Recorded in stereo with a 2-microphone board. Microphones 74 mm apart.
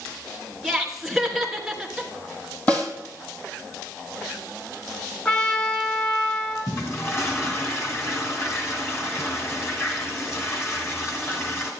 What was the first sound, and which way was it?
Laughter, centre (ahead or behind).